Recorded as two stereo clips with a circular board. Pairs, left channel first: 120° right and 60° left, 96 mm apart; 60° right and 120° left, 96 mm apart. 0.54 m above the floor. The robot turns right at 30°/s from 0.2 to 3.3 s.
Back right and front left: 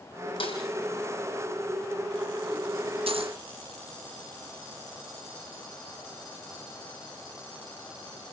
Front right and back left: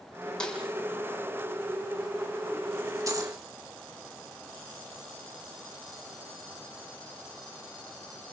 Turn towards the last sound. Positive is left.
turn(degrees=75)